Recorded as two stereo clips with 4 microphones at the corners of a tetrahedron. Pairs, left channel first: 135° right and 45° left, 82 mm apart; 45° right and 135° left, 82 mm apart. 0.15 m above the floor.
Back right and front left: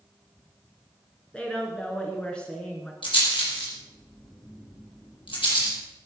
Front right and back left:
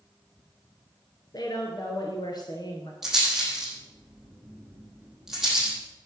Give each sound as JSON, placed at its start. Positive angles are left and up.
{"t": 1.3, "sound": "a woman speaking", "azimuth_deg": -60, "distance_m": 2.0}
{"t": 3.0, "sound": "a rattle", "azimuth_deg": -140, "distance_m": 6.0}